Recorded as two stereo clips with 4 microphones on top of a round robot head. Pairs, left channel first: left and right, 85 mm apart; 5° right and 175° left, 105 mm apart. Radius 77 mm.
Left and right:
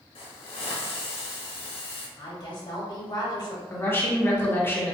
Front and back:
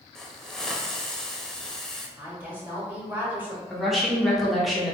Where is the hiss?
80° left, 0.6 m.